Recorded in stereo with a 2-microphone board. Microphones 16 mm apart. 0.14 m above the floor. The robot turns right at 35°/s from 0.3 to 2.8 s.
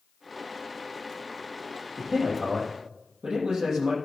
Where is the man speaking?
55° right (ahead or behind), 5 m; by 3.9 s 75° right (ahead or behind), 5 m.